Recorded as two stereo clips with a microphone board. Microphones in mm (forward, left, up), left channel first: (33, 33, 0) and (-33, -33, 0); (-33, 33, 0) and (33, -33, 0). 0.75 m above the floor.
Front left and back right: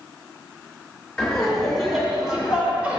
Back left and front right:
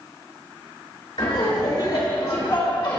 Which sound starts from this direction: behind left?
Laughter, at 1.2 s.